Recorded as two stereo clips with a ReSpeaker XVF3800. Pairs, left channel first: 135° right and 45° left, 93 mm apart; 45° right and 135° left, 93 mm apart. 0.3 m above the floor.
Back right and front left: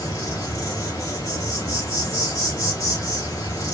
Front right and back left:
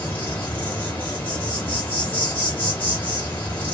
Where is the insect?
105° right, 2 m.